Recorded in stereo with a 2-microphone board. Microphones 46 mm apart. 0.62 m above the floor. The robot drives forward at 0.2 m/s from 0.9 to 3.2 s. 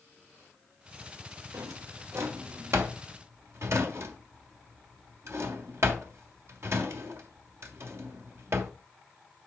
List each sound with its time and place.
1.5 s a drawer: 70° right (ahead or behind), 1.3 m; by 8.7 s 65° right (ahead or behind), 1.4 m